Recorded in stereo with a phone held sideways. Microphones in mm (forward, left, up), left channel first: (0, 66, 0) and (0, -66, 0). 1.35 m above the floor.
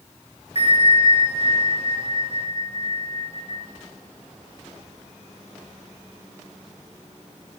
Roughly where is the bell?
Left.